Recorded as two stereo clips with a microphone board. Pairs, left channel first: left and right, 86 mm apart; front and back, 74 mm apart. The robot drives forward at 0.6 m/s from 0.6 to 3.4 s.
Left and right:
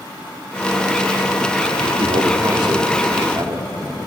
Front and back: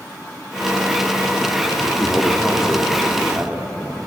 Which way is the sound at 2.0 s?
80° right.